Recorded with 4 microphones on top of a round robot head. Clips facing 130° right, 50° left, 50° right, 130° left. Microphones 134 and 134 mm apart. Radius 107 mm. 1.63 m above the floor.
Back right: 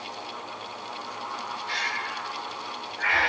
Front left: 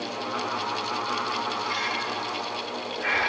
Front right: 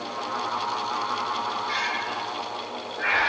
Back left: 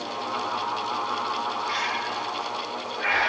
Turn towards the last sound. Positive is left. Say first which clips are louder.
# front left 4 dB, back left 1 dB
turn(degrees=-150)